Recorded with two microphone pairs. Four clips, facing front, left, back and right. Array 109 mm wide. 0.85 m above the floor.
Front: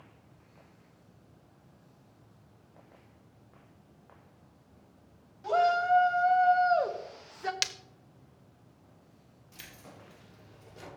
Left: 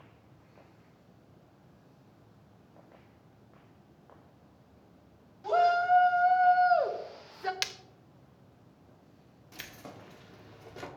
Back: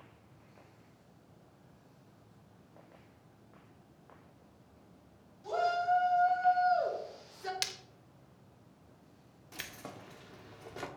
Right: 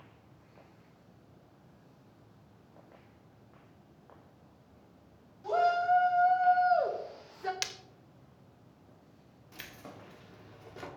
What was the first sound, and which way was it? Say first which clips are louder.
A shout: left 2 dB, front 5 dB; 45° left.